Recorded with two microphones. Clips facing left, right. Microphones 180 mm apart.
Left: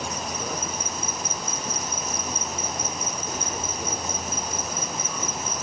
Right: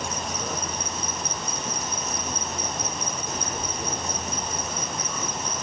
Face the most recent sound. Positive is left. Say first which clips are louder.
# even
turn(degrees=5)  # may be behind; listen again after turning